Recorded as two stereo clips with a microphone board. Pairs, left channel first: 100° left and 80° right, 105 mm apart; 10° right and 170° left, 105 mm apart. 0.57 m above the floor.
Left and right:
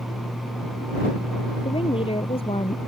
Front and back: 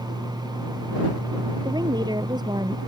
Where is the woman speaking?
125° left.